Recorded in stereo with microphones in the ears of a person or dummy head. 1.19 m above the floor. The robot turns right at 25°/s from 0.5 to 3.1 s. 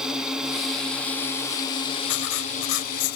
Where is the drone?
5° right; by 3.2 s 60° left.